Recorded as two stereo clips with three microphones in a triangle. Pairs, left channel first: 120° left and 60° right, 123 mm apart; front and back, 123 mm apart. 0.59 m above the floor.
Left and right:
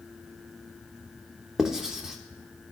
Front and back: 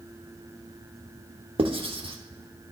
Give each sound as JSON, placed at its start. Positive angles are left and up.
{"t": 1.6, "sound": "writing", "azimuth_deg": -145, "distance_m": 0.9}